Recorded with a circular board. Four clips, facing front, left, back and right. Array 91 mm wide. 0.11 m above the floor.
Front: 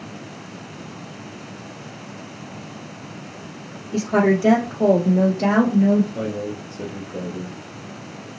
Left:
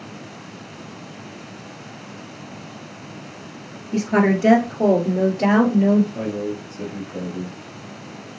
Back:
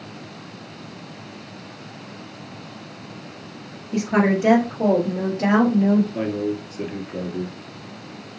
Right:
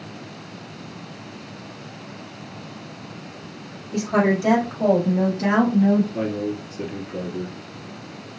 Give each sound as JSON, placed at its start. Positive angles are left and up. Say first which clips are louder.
{"t": 3.9, "sound": "a woman speaking", "louder": "left 2 dB, front 1 dB", "azimuth_deg": 130, "distance_m": 2.0}
{"t": 6.1, "sound": "a man speaking", "louder": "right 1 dB, back 3 dB", "azimuth_deg": -165, "distance_m": 1.8}